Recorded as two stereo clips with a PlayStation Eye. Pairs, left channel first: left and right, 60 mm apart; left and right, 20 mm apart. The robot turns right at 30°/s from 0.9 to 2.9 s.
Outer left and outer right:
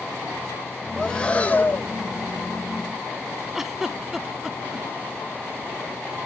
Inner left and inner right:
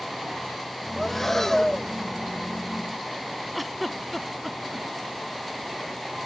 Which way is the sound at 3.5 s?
5° right (ahead or behind).